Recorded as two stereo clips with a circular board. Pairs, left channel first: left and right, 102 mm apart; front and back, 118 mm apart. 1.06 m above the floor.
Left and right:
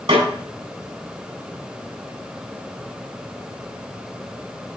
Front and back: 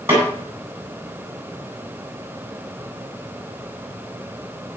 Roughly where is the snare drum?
Right.